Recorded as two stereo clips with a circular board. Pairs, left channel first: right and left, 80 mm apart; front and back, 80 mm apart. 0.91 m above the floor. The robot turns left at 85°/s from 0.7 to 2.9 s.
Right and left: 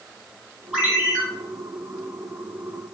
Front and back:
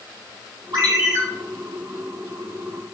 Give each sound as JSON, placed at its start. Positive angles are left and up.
{"t": 0.7, "sound": "a ringtone", "azimuth_deg": 165, "distance_m": 1.2}